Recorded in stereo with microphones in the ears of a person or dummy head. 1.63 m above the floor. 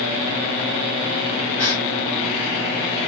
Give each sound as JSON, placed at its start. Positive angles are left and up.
{"t": 1.6, "sound": "a gasp", "side_deg": -35, "distance_m": 2.0}